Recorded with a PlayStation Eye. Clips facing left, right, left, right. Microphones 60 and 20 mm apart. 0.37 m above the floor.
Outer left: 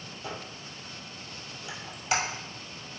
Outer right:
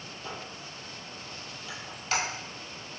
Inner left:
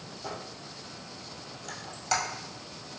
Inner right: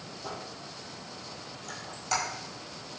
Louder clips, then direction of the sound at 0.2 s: Outer left 1 dB, inner left 1 dB; 15° left (ahead or behind).